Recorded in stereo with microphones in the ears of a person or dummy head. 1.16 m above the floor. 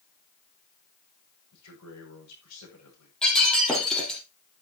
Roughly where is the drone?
No drone in this recording.